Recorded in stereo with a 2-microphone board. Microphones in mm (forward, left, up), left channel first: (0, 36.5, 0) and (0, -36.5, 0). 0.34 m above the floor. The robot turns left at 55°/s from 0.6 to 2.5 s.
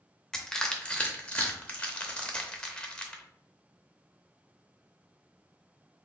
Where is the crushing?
10° left (ahead or behind), 0.7 m.